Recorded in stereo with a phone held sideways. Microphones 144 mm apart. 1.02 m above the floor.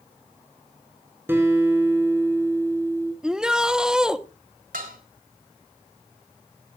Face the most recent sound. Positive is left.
turn(degrees=-80)